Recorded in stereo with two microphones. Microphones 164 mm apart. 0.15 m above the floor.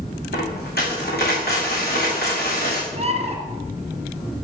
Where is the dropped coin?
75° left (ahead or behind), 5 m.